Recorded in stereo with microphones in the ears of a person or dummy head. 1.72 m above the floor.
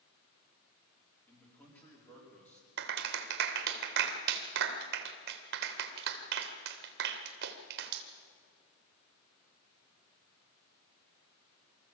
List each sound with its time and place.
1.3 s a man speaking: 10° left (ahead or behind), 4.5 m
2.8 s a clap: 55° right (ahead or behind), 1.6 m